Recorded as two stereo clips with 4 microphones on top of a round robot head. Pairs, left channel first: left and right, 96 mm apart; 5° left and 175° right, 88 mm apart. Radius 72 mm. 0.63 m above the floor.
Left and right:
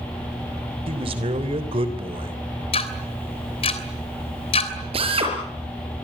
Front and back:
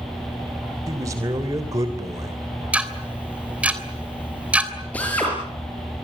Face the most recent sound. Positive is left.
turn(degrees=-75)